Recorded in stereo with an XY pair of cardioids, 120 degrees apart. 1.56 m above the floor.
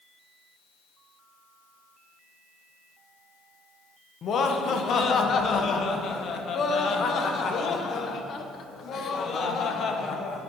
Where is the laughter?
50° left, 1.1 m.